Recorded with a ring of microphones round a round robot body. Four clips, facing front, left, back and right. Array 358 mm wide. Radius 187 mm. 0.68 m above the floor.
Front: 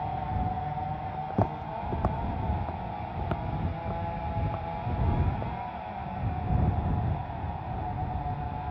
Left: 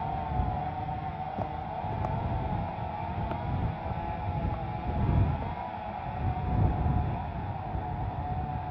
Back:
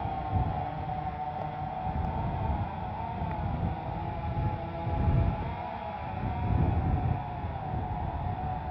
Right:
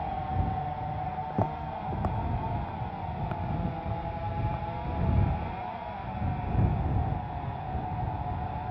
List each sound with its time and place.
1.1 s footsteps: 35° right; by 5.5 s 5° left